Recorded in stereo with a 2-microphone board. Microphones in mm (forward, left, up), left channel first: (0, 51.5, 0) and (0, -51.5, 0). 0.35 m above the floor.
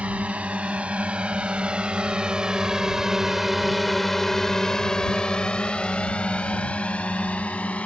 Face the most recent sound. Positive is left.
turn(degrees=15)  # may be behind; listen again after turning